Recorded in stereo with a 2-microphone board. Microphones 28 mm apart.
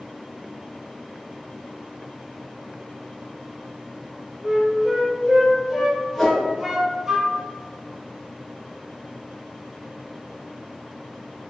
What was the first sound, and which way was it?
A flute, centre (ahead or behind).